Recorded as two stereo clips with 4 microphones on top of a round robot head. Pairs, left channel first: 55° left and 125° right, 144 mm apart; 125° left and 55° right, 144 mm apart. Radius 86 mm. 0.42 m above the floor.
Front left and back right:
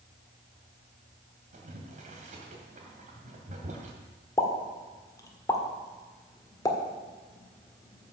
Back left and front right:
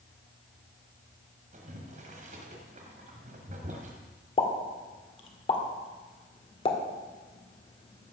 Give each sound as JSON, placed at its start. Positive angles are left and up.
{"t": 1.5, "sound": "boiling", "azimuth_deg": -90, "distance_m": 2.0}
{"t": 4.4, "sound": "a pop", "azimuth_deg": 110, "distance_m": 1.8}